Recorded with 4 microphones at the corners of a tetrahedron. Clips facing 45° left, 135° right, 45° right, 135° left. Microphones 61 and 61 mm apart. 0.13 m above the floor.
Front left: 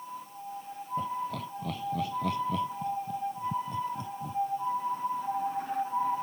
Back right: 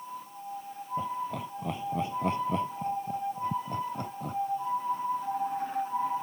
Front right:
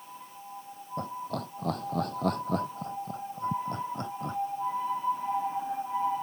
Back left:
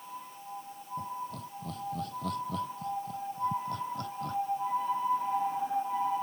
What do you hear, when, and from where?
1.0 s laughter: 60° right; by 4.4 s 110° right